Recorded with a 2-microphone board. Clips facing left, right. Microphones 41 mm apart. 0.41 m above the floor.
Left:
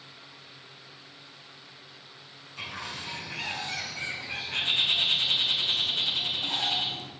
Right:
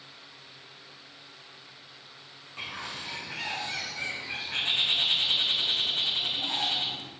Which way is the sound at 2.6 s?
40° right (ahead or behind).